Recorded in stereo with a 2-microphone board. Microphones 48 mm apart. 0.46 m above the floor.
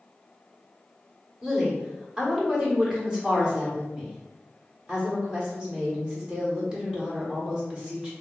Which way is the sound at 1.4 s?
20° right (ahead or behind).